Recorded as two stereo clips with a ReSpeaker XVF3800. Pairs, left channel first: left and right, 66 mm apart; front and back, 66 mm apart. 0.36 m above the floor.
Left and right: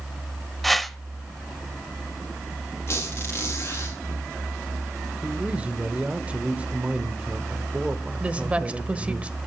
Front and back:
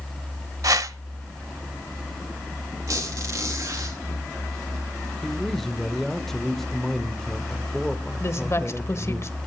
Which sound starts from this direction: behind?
A whoosh, at 0.6 s.